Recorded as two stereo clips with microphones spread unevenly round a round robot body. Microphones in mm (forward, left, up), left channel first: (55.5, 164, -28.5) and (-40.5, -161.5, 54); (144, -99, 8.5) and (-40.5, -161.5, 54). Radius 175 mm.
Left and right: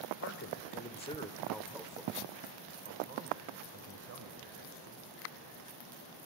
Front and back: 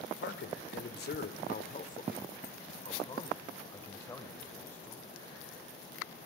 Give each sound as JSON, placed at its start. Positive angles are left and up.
{"t": 0.2, "sound": "a man speaking", "azimuth_deg": 30, "distance_m": 1.7}